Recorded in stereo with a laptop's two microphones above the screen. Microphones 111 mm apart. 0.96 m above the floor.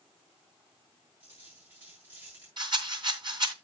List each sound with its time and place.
1.2 s a dropped coin: 15° right (ahead or behind), 7.5 m
2.6 s a rattle: 45° right (ahead or behind), 2.5 m